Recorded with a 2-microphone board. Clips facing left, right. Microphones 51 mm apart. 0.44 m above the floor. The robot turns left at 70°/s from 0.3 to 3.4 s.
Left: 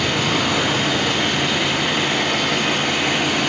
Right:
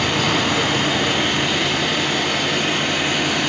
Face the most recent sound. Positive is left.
turn(degrees=45)